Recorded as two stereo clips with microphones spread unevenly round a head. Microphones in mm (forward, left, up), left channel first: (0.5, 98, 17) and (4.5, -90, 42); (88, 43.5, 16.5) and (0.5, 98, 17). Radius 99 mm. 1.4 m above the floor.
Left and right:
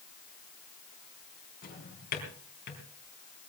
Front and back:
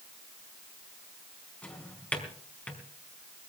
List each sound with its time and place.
1.6 s a drawer: 45° left, 4 m